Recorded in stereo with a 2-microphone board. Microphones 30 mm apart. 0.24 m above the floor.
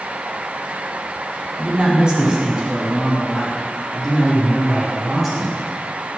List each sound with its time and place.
1.6 s a man speaking: 35° right (ahead or behind), 1.7 m; by 5.6 s 10° right (ahead or behind), 4.5 m